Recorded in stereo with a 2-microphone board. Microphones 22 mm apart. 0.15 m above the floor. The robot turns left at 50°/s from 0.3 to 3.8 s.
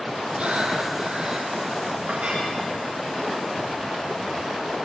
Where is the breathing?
80° right, 4 m; by 1.5 s 135° right, 4 m.